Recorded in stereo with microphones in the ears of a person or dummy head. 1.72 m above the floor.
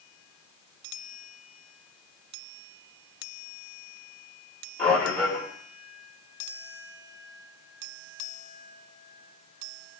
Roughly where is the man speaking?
Centre.